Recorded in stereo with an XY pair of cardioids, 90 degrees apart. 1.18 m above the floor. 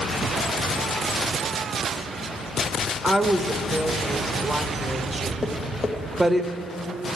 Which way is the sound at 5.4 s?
40° left.